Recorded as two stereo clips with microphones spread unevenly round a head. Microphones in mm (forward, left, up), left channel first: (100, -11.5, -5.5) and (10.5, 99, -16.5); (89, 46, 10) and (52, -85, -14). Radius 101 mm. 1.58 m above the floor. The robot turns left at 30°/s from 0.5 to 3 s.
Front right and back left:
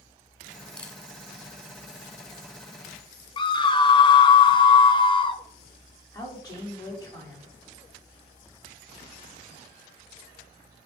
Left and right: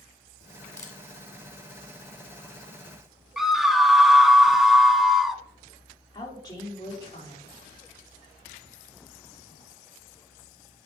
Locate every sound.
0.8 s a camera shutter: 25° left, 1.8 m; by 1.0 s 20° left, 1.8 m
3.4 s a scream: 10° right, 0.7 m
6.1 s a woman speaking: 10° left, 4 m